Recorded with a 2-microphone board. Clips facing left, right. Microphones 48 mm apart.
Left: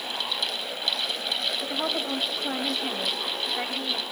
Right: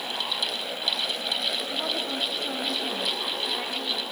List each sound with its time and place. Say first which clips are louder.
1.6 s a woman speaking: left 1 dB; 20° left (ahead or behind), 2.5 m